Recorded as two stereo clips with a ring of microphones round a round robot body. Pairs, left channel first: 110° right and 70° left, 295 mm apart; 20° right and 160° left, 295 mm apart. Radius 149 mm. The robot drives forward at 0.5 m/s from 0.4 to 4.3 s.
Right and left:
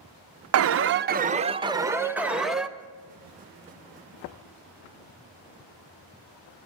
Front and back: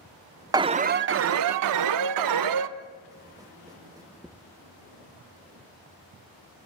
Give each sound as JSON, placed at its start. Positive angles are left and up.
{"t": 0.5, "sound": "an alarm", "azimuth_deg": 85, "distance_m": 0.6}